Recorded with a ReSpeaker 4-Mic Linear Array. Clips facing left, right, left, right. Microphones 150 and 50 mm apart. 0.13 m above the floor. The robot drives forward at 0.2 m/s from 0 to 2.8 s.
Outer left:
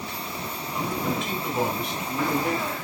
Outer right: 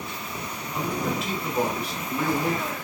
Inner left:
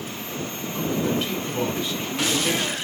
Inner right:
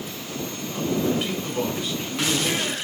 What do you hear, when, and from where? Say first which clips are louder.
0.7 s a man speaking: even, inner right 1 dB; 5° right (ahead or behind), 1.8 m